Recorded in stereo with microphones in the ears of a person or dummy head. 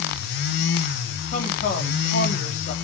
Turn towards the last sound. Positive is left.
turn(degrees=45)  # may be behind; listen again after turning